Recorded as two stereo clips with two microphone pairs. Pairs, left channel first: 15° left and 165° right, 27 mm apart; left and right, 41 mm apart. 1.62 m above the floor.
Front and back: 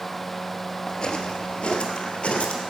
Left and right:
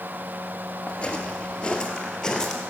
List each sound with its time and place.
0.9 s footsteps: 50° left, 2 m; by 2.6 s 20° left, 2.5 m